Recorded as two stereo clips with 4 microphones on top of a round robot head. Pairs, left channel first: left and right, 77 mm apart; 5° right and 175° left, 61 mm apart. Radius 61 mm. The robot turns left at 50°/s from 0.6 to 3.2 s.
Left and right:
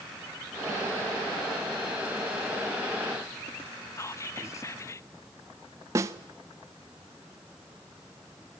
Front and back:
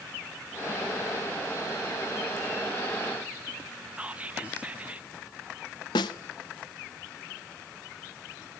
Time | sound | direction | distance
4.0 | whispering | 120° left | 0.7 m
6.0 | a snare drum | 25° right | 0.5 m